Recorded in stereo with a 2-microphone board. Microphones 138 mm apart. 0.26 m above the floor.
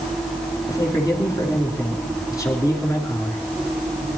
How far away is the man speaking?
About 3.5 m.